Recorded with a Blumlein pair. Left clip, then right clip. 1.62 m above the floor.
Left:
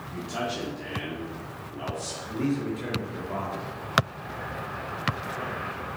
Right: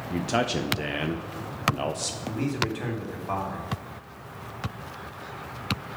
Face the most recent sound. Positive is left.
turn(degrees=-50)